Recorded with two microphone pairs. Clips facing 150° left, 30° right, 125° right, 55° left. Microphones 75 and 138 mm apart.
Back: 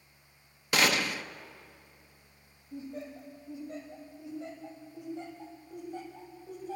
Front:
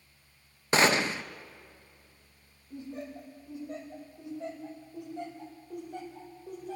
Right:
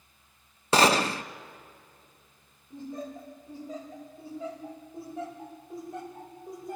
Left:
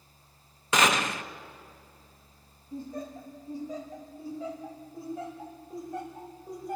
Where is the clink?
I don't hear a clink.